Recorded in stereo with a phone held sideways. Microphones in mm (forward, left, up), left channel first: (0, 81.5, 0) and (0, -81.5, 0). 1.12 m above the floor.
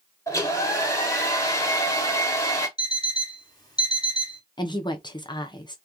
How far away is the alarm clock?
About 1.0 m.